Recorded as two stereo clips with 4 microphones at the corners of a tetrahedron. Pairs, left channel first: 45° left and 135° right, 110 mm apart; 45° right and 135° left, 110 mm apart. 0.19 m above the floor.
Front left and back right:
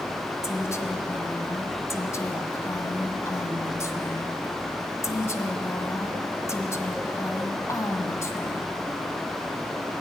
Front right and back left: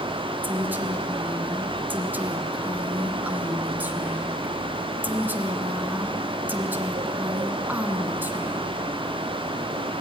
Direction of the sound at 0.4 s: 80° left.